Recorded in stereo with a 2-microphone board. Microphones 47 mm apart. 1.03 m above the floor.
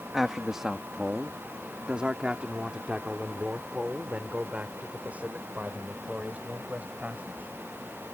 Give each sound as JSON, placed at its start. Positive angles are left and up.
{"t": 0.1, "sound": "a man speaking", "side_deg": -5}